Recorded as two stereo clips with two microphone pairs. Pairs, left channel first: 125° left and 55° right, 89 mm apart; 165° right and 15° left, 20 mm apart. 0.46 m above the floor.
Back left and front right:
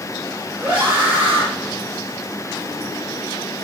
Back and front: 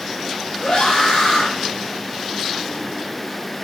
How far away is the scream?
About 4.5 m.